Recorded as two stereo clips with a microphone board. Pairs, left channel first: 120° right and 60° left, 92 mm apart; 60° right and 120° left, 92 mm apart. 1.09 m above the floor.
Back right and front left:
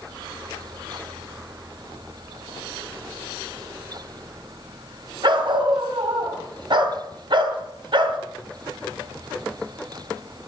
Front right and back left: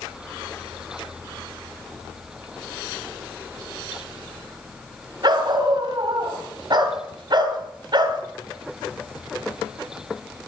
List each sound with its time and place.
5.2 s a dog barking: 85° left, 2.5 m